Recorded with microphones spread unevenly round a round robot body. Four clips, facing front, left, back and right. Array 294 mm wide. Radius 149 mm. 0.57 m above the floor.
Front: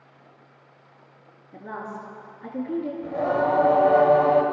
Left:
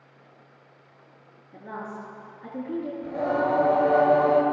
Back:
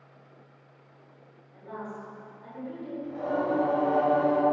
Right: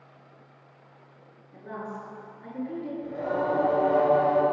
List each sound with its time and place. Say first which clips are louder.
1.5 s a woman speaking: left 1 dB, front 4 dB; 15° left, 7.5 m; by 2.9 s 20° left, 7 m
3.0 s singing: left 3 dB, front 5 dB; 15° left, 3.5 m